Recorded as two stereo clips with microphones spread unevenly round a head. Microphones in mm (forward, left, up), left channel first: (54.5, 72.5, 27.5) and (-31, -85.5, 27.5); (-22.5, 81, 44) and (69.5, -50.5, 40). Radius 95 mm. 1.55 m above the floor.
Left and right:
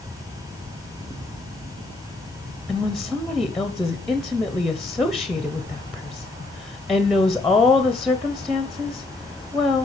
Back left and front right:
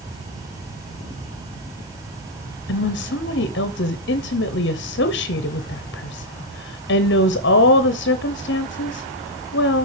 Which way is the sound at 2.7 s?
150° left.